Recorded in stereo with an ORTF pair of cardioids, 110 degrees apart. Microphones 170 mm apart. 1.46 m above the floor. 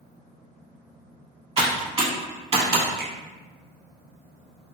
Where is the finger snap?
65° right, 0.8 m.